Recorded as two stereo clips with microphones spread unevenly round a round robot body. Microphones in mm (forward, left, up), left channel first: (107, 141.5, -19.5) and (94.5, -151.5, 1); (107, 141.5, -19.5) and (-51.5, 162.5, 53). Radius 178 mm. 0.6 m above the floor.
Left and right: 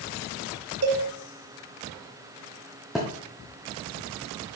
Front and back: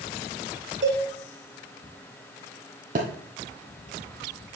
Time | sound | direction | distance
0.8 | a cowbell | 145° right | 1.3 m
3.0 | a thud | straight behind | 1.4 m